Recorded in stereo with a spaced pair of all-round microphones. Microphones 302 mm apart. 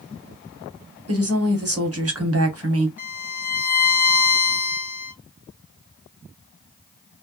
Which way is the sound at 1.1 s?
50° right (ahead or behind).